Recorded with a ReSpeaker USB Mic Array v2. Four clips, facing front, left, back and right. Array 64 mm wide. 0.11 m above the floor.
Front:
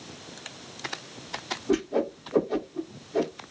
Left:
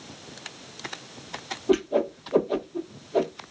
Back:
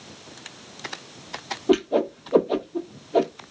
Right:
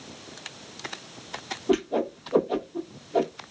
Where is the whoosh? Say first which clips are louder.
Left 2 dB, back 5 dB; straight behind, 0.6 m.